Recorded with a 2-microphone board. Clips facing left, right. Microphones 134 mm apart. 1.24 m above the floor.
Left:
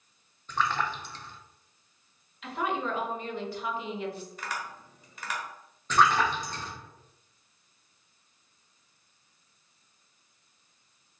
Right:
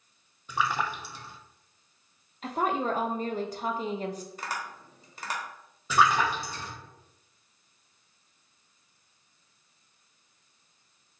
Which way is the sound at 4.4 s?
30° right (ahead or behind).